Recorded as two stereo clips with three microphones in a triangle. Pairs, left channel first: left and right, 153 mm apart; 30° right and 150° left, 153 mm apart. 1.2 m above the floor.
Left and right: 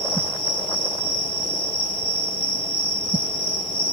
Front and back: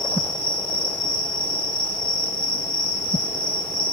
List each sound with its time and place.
0.0 s an insect: 50° left, 1.3 m